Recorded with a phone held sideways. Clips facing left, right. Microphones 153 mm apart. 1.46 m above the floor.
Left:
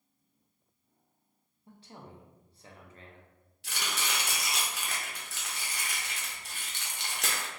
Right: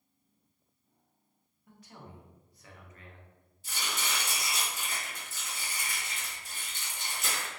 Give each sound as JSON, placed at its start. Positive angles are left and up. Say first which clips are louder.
{"t": 1.7, "sound": "a man speaking", "louder": "left 1 dB", "side_deg": 30, "distance_m": 0.6}
{"t": 3.6, "sound": "chopping", "louder": "left 1 dB", "side_deg": 70, "distance_m": 0.7}